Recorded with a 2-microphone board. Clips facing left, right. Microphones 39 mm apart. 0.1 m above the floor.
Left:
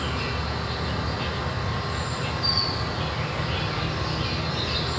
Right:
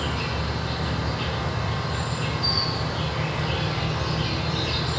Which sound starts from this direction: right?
An insect, at 0.0 s.